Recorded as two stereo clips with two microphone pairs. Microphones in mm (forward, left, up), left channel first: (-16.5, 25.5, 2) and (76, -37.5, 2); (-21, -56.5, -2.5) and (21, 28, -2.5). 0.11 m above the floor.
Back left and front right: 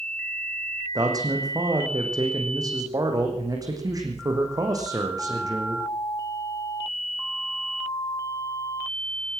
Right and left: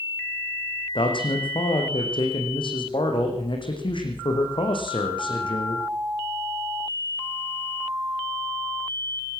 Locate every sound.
0.9 s a man speaking: 90° right, 5 m